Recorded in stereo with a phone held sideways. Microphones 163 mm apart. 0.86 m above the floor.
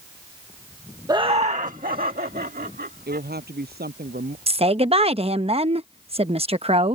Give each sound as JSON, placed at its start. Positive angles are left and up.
{"t": 1.1, "sound": "laughter", "side_deg": -20}
{"t": 3.1, "sound": "a woman speaking", "side_deg": -65}
{"t": 4.5, "sound": "a woman speaking", "side_deg": -35}